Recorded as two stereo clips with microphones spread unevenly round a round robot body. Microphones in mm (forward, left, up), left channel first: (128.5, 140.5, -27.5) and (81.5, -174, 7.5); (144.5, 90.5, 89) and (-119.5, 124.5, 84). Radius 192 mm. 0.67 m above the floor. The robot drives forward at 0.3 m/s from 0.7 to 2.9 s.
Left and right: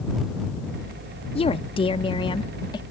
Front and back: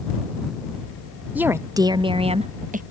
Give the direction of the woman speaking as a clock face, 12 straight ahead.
9 o'clock.